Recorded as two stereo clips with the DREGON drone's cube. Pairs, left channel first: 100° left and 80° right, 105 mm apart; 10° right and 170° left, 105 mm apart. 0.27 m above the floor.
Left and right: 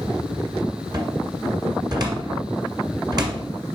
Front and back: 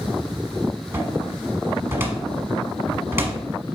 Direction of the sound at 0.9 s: 125° right.